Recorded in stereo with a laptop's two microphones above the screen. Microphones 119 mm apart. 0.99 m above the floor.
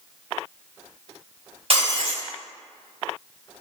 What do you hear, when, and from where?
1.7 s breaking glass: 55° right (ahead or behind), 1.9 m